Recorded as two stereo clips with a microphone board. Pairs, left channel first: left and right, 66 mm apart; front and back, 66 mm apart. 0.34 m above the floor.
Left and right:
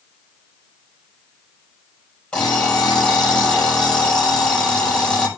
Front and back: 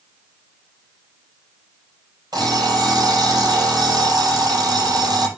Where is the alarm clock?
165° left, 5 m.